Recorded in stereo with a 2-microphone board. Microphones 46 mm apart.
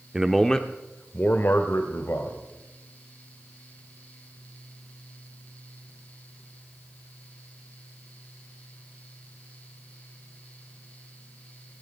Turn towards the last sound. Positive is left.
turn(degrees=65)  # may be behind; listen again after turning